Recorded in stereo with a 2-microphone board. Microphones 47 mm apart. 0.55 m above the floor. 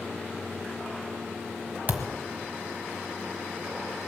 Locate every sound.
1.9 s a thud: 35° right (ahead or behind), 1.3 m